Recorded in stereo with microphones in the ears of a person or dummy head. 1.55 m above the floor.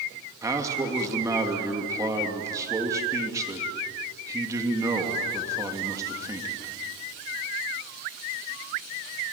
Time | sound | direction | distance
0.4 | a man speaking | 20° right (ahead or behind) | 2.5 m